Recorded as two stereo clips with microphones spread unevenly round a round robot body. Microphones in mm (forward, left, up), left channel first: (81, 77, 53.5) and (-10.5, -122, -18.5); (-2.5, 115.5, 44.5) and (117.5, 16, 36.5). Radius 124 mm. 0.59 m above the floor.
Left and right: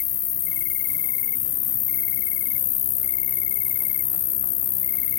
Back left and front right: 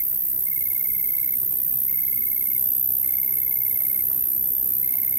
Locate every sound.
0.0 s an insect: 30° left